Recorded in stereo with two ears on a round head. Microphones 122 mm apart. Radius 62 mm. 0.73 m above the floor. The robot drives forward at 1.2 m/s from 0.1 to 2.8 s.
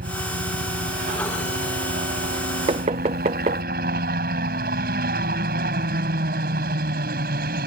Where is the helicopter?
75° right (ahead or behind).